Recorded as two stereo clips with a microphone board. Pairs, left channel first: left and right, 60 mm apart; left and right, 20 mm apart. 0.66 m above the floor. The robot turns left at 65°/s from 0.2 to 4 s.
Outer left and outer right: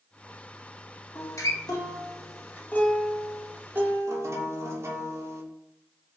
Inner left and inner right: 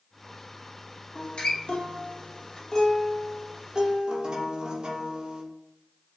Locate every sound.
1.1 s a guitar: 135° left, 0.5 m; by 5.4 s 50° right, 0.5 m